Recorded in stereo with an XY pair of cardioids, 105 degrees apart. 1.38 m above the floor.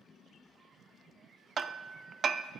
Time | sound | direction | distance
1.6 | hammering | 50° right | 0.5 m